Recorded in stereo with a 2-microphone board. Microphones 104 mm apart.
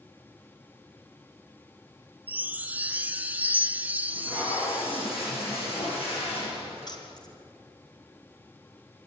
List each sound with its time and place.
2.3 s a chime: 15° right (ahead or behind), 0.6 m
4.1 s tape being pulled: 65° left (ahead or behind), 10 m
6.9 s keys jangling: 40° left (ahead or behind), 3 m